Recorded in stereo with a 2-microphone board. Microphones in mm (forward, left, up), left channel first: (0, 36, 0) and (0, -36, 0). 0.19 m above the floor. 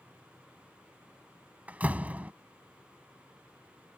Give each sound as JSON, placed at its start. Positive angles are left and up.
{"t": 1.7, "sound": "a door slam", "side_deg": -20}